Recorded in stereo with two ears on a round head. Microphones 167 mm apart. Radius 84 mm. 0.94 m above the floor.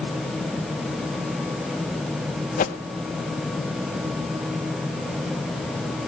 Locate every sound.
2.6 s a whoosh: 40° left (ahead or behind), 0.5 m